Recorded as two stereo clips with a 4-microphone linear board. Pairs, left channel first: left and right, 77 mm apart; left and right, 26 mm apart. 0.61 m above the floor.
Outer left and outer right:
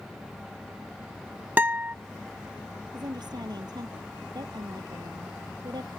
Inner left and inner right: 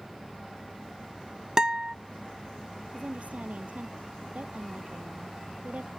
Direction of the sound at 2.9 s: 65° right (ahead or behind).